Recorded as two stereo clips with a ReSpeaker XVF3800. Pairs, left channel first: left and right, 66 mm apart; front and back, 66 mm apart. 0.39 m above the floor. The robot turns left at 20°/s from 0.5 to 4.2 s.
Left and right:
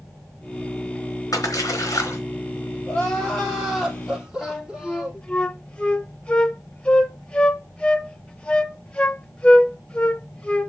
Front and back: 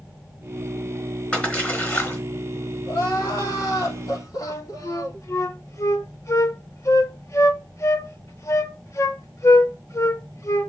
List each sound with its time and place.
1.3 s a splash: 65° left, 3 m; by 2.2 s 50° left, 3 m
2.9 s crying: 20° left, 4 m; by 5.3 s 10° right, 4 m
4.4 s a flute: 20° left, 0.9 m